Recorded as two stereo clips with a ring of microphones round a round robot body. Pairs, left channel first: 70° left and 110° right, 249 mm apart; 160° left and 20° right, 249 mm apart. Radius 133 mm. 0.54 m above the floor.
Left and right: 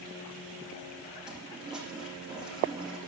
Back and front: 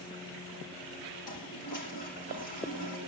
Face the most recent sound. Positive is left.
turn(degrees=160)